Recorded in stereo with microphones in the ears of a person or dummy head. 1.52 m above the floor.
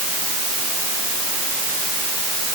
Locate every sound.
Only background noise.